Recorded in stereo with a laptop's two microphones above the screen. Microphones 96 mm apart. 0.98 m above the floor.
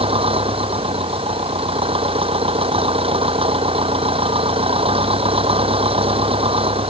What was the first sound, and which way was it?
An engine running, 80° right.